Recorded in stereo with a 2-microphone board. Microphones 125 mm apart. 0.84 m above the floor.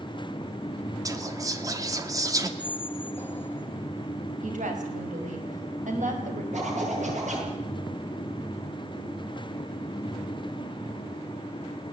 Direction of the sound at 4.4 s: 80° right.